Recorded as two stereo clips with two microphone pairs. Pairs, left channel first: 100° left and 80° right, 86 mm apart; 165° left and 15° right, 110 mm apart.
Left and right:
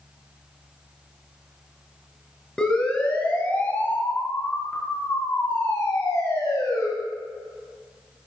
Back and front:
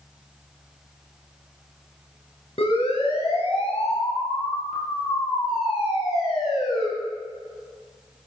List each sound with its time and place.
2.6 s a siren: straight behind, 6 m; by 6.9 s 145° left, 11 m